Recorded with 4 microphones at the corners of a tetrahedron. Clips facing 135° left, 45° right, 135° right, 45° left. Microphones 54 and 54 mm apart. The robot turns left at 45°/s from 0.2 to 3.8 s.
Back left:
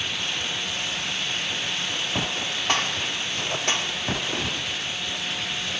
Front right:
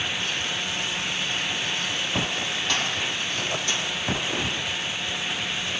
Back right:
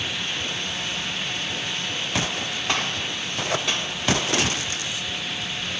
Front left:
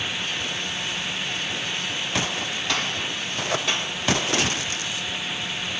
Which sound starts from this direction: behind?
A gunshot, at 2.7 s.